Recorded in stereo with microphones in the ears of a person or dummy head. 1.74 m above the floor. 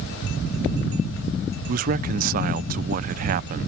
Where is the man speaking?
45° right (ahead or behind).